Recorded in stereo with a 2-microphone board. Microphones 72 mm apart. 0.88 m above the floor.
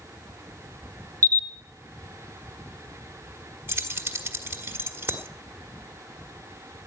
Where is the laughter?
No laughter in this recording.